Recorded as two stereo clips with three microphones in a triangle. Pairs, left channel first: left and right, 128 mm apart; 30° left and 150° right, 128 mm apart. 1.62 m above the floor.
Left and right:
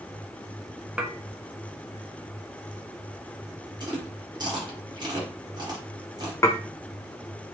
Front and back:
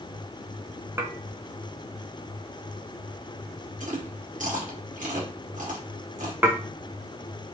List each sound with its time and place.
1.0 s dishes clattering: 160° right, 0.6 m
3.8 s chewing: 145° right, 1.5 m
6.4 s dishes clattering: 145° left, 0.7 m